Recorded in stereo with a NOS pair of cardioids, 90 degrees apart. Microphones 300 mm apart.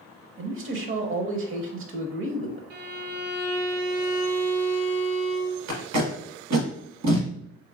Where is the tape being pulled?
65° right, 1.3 m.